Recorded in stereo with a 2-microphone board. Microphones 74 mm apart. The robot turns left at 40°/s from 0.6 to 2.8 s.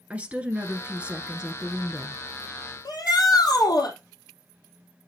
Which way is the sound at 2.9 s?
60° left (ahead or behind).